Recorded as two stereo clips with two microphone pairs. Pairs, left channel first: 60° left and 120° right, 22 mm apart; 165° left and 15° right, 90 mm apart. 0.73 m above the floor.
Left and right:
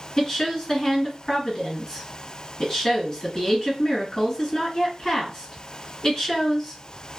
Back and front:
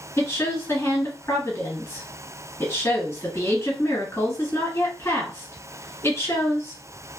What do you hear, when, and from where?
0.2 s a woman speaking: 115° left, 1.6 m